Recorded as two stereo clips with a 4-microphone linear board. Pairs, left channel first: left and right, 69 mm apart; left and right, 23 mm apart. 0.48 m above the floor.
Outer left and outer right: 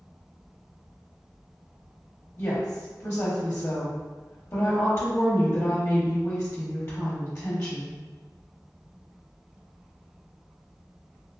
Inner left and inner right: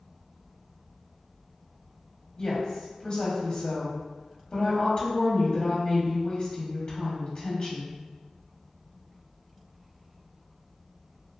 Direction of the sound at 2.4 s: 25° left (ahead or behind).